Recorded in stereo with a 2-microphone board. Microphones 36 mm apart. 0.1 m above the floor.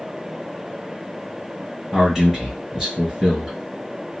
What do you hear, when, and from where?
1.9 s a man speaking: 15° right (ahead or behind), 1.9 m